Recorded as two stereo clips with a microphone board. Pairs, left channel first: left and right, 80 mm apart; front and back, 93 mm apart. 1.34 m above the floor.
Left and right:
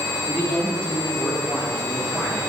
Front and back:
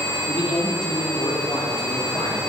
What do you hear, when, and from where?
0.3 s a man speaking: 15° left, 5 m